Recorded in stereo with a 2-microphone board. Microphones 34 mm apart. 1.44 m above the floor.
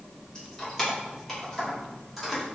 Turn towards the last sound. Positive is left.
turn(degrees=-5)  # may be behind; listen again after turning